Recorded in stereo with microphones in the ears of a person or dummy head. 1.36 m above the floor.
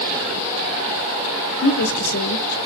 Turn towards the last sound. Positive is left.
turn(degrees=90)